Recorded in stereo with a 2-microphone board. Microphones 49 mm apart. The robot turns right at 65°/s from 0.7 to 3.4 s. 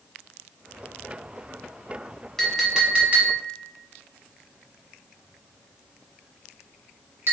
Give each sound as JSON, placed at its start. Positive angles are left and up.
{"t": 2.4, "sound": "a clink", "side_deg": 5, "distance_m": 0.9}